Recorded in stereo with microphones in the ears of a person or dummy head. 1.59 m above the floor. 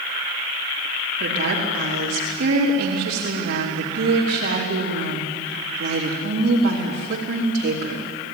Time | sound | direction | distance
1.2 | a woman speaking | 55° right (ahead or behind) | 4.5 m